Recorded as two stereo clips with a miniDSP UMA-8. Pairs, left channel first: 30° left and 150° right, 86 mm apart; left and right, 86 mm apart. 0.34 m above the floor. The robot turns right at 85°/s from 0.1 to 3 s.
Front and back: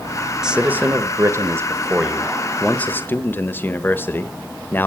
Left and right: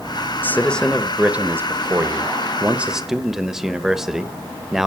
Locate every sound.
0.4 s a man speaking: 130° left, 1.1 m; by 4.9 s 10° right, 1.1 m